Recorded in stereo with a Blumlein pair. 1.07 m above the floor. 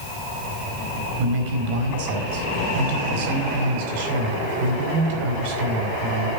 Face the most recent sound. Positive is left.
turn(degrees=-50)